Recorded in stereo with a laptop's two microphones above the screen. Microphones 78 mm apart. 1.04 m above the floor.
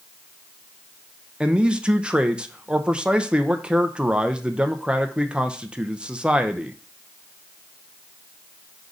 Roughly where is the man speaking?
Centre.